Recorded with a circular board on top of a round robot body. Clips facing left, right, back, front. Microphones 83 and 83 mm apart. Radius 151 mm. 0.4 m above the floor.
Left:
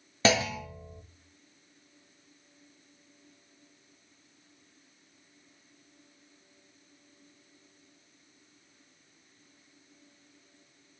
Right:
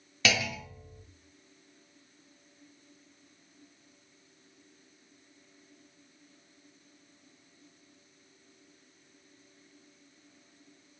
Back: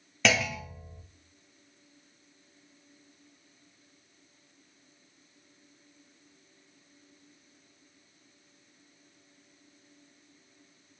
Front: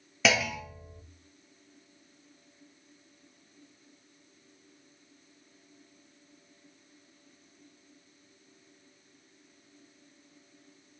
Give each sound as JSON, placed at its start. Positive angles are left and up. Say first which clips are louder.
{"t": 0.2, "sound": "a clunk", "louder": "left 5 dB, even", "azimuth_deg": 85, "distance_m": 0.9}